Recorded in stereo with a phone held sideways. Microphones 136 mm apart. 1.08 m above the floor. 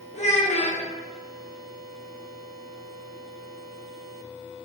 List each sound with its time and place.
0.1 s a child speaking: 55° left (ahead or behind), 0.6 m